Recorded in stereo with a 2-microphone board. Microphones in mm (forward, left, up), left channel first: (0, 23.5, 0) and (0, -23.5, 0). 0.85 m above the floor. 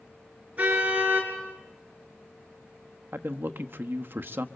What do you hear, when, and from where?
0.6 s a car horn: 30° right (ahead or behind), 5.5 m
3.1 s a man speaking: 50° right (ahead or behind), 1.1 m